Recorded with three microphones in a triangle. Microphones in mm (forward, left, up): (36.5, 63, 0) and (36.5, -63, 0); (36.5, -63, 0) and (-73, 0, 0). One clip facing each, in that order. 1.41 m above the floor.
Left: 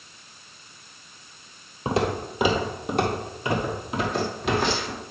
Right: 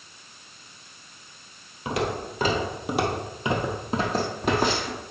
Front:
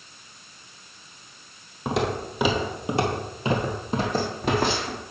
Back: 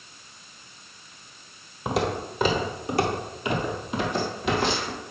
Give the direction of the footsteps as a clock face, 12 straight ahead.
10 o'clock.